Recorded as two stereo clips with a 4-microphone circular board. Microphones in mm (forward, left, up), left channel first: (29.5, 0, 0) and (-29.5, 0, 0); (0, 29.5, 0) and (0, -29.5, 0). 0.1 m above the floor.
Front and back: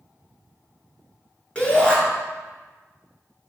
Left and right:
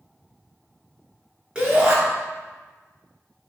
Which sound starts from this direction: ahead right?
A shout, at 1.6 s.